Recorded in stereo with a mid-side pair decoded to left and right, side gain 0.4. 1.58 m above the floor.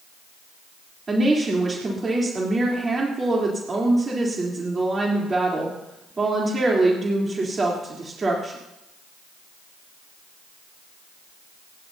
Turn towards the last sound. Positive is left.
turn(degrees=-35)